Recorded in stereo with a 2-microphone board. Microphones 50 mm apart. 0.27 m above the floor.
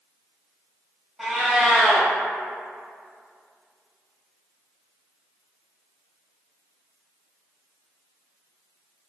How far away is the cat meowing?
About 0.7 m.